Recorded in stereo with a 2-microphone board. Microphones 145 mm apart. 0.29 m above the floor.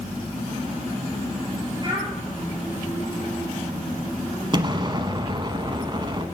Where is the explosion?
35° right (ahead or behind), 0.8 m.